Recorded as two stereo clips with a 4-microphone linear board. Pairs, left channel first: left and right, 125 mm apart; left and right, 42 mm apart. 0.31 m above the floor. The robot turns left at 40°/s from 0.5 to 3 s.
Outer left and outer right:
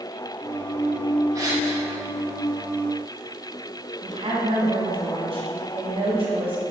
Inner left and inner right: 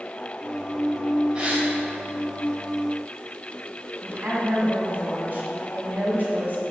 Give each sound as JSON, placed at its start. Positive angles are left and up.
{"t": 1.4, "sound": "a gasp", "side_deg": -30, "distance_m": 1.6}
{"t": 4.0, "sound": "a woman speaking", "side_deg": -45, "distance_m": 2.5}